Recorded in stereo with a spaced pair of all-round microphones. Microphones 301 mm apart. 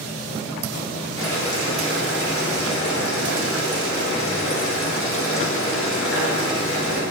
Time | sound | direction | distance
1.2 | boiling | 45° left (ahead or behind) | 1.5 m